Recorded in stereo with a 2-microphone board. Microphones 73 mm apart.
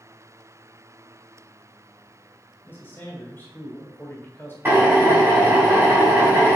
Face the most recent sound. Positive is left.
turn(degrees=-25)  # may be behind; listen again after turning